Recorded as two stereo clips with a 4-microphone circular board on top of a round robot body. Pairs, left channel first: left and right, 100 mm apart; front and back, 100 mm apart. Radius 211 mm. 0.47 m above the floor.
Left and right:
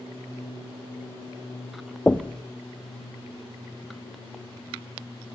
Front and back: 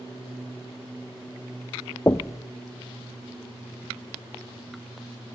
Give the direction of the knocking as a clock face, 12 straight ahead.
11 o'clock.